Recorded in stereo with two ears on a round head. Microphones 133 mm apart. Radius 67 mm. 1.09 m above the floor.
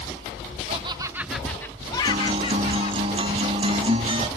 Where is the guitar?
35° right (ahead or behind).